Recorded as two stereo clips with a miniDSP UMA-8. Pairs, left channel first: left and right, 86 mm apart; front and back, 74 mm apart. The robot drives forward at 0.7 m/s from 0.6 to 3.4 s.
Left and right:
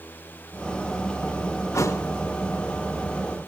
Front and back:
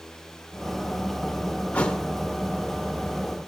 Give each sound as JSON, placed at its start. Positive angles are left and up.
{"t": 1.7, "sound": "a thud", "azimuth_deg": 60, "distance_m": 1.1}